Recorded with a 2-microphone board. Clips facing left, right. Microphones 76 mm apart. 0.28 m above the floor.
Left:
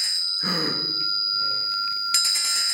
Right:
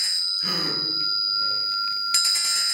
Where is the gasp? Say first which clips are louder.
Left 3 dB; 30° left (ahead or behind), 1.3 m.